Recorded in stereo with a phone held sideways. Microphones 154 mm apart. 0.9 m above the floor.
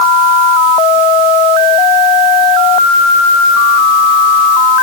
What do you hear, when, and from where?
Only background noise.